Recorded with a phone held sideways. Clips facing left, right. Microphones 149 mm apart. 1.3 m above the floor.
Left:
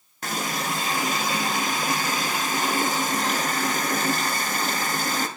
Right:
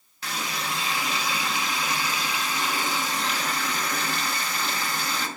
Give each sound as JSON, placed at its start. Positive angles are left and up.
{"t": 0.2, "sound": "a running tap", "side_deg": 50, "distance_m": 0.5}